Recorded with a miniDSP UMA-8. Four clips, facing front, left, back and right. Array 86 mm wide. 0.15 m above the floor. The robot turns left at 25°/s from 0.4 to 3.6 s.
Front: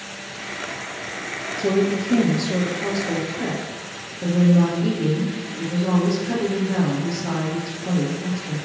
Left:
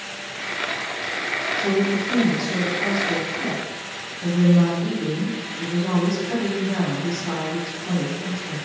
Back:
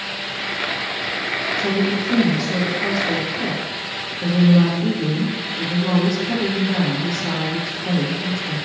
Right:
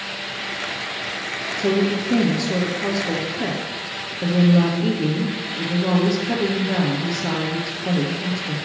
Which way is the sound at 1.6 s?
45° right.